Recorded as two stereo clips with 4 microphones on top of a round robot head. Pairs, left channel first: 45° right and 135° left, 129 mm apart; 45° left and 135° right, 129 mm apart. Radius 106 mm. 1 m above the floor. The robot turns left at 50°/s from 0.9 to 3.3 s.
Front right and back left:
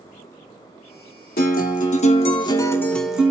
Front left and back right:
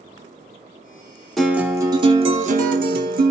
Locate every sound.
1.4 s a guitar: 45° right, 1.1 m; by 3.3 s 145° right, 1.1 m